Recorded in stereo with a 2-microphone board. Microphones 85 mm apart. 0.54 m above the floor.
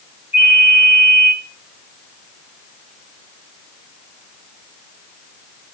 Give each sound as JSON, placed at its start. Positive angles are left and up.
{"t": 0.3, "sound": "a ringtone", "side_deg": 75, "distance_m": 2.0}